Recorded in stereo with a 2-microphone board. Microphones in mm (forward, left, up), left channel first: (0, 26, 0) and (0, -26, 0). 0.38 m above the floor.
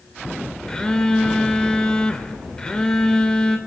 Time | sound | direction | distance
0.7 | a phone buzzing | 15° left (ahead or behind) | 0.7 m